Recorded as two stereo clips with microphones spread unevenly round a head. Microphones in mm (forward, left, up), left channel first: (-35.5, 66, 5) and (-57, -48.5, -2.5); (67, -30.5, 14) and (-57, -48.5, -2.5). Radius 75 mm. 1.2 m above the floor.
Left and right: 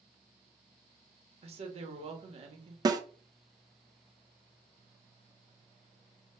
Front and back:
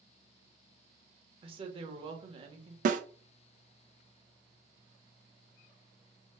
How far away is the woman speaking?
About 1.0 m.